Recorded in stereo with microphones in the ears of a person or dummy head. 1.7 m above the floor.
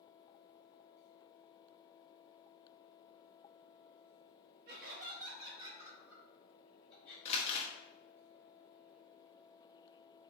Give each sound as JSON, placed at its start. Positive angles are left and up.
{"t": 4.7, "sound": "laughter", "side_deg": -50, "distance_m": 1.2}
{"t": 7.2, "sound": "crumpling", "side_deg": 30, "distance_m": 0.8}